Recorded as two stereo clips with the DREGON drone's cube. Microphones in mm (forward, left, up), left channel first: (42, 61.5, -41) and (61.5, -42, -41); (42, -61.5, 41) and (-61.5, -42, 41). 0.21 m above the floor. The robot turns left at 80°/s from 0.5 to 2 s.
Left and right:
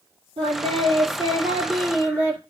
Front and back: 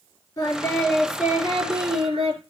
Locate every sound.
0.4 s singing: 65° right, 4.5 m; by 2.4 s 175° left, 4.5 m